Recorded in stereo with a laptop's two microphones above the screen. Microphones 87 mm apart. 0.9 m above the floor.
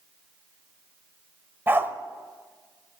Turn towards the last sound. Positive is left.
turn(degrees=-25)  # may be behind; listen again after turning